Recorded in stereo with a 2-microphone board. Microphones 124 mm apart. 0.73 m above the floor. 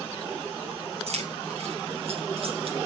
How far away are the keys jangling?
About 4.5 m.